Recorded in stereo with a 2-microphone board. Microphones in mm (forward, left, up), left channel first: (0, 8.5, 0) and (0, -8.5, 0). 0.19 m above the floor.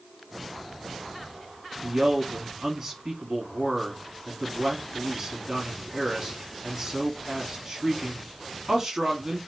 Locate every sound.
1.8 s a man speaking: 40° right (ahead or behind), 1.3 m